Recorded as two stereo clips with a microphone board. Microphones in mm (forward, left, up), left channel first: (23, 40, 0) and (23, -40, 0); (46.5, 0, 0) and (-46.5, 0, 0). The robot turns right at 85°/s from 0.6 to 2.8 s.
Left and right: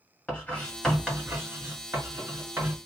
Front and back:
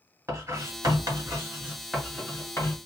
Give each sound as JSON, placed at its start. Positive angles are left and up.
{"t": 0.3, "sound": "writing", "azimuth_deg": 150, "distance_m": 1.8}